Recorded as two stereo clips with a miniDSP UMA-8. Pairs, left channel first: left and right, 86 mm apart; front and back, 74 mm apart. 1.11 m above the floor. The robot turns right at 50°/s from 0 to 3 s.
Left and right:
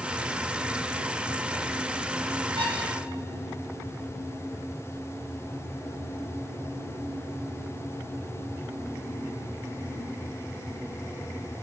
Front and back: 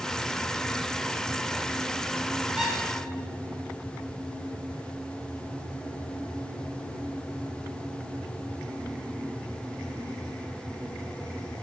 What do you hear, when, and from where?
2.6 s a squeak: 105° right, 1.6 m; by 2.8 s 95° right, 1.6 m